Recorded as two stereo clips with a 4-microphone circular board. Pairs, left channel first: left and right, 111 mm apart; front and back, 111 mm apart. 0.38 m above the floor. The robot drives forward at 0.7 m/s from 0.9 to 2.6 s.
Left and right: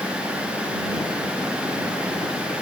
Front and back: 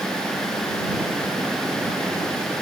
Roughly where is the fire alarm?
No fire alarm in this recording.